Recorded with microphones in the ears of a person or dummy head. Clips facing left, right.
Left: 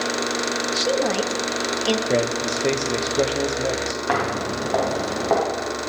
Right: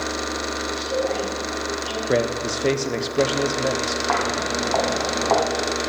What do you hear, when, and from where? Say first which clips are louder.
0.7 s a woman speaking: left 2 dB; 75° left (ahead or behind), 1.5 m
2.1 s a man speaking: even; 10° right (ahead or behind), 0.9 m
4.1 s footsteps: left 2 dB; 25° left (ahead or behind), 2.5 m; by 5.4 s 5° left (ahead or behind), 2.5 m